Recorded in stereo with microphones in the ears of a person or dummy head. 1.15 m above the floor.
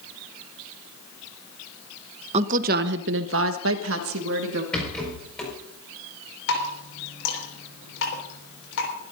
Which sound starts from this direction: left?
Dripping, at 6.5 s.